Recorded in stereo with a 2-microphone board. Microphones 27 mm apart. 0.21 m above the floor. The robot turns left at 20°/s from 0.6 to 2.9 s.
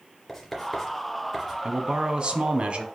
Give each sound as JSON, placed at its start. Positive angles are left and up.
{"t": 0.3, "sound": "writing", "side_deg": 15, "distance_m": 2.5}
{"t": 1.6, "sound": "a man speaking", "side_deg": -35, "distance_m": 1.3}